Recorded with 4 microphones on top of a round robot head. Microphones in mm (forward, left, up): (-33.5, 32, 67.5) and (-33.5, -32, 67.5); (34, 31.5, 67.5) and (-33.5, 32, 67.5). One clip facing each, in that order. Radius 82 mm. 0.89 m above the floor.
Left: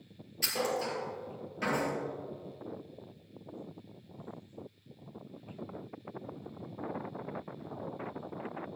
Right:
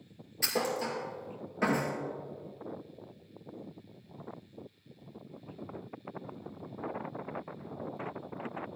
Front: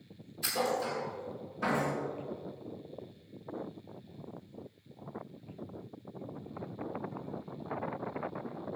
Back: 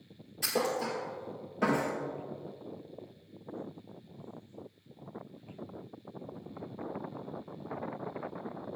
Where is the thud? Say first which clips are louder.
Right 1 dB, back 1 dB; 150° right, 2.0 m.